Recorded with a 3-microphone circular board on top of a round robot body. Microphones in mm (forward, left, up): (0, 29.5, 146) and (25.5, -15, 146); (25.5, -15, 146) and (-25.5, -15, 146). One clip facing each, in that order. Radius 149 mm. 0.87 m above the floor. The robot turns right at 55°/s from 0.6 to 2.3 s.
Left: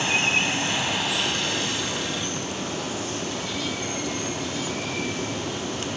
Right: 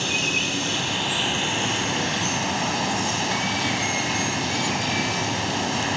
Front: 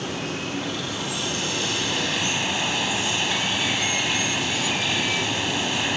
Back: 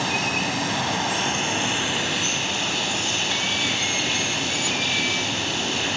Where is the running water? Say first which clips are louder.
Left 2 dB, back 5 dB; 175° left, 3.5 m; by 6.0 s 90° right, 3.5 m.